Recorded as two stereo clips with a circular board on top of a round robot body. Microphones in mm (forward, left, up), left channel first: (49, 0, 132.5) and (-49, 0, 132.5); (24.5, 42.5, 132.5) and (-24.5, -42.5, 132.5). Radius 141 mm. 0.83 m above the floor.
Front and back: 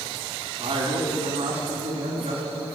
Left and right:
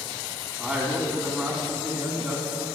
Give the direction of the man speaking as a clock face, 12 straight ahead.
7 o'clock.